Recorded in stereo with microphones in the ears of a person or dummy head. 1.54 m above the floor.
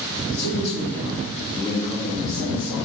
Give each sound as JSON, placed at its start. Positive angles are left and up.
{"t": 0.3, "sound": "a man speaking", "side_deg": 70, "distance_m": 2.5}